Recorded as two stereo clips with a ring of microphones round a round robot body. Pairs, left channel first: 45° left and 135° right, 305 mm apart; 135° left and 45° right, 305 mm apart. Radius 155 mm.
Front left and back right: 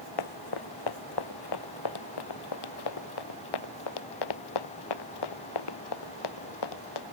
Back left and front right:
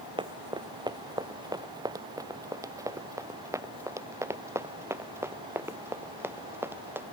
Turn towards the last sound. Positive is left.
turn(degrees=40)